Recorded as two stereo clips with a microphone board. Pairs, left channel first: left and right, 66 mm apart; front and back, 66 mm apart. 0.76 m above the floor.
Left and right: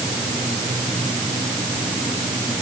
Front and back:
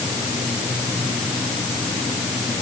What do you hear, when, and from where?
Only background noise.